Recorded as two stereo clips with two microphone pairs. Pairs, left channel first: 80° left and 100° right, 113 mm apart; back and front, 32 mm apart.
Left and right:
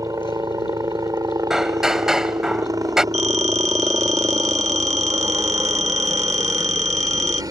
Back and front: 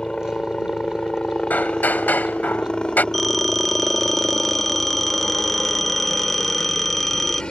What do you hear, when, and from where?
0.0 s a helicopter: 135° right
1.5 s hammering: 175° left
3.1 s a phone ringing: 95° right